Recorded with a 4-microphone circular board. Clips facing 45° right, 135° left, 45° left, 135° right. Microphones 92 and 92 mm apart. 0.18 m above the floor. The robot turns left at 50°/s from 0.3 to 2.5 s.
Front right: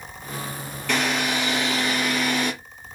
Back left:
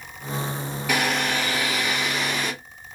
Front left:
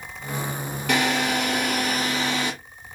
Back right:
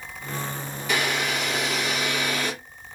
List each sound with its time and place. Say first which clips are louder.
0.9 s a drill: even, front left 4 dB; 55° left, 3.5 m; by 2.5 s 25° right, 3.5 m